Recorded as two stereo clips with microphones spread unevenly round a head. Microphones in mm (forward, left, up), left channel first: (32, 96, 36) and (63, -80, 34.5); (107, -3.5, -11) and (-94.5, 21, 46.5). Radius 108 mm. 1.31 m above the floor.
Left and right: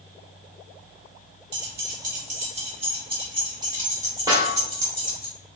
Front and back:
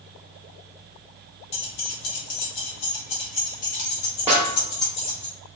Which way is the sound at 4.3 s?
145° right.